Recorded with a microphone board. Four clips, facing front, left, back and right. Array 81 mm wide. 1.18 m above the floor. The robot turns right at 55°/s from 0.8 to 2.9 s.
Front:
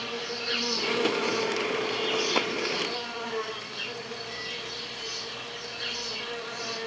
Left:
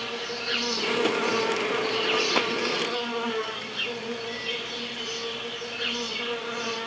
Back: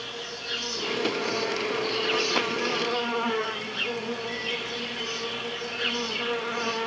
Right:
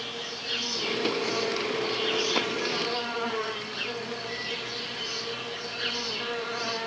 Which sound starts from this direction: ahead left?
An insect, at 0.0 s.